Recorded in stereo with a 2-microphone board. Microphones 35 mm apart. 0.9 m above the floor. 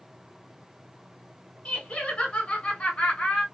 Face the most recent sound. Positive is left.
turn(degrees=40)  # may be behind; listen again after turning